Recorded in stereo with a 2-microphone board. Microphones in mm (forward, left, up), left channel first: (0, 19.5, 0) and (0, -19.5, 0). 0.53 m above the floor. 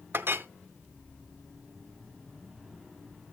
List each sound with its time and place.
0.1 s a clink: 65° right (ahead or behind), 0.5 m